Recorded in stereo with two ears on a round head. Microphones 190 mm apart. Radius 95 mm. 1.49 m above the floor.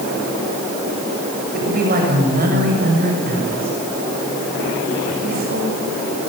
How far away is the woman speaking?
About 7.5 m.